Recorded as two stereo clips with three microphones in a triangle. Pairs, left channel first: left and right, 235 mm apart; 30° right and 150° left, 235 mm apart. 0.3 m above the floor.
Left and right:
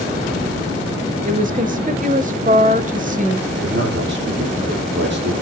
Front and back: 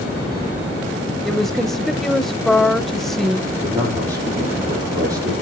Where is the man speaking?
130° right, 9.5 m.